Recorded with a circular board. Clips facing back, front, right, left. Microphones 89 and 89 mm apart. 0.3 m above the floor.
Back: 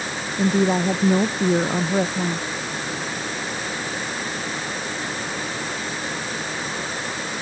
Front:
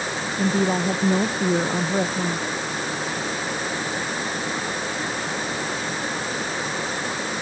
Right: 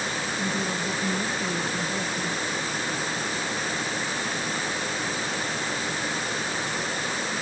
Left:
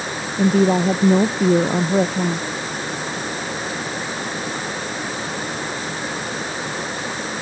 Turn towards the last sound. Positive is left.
turn(degrees=95)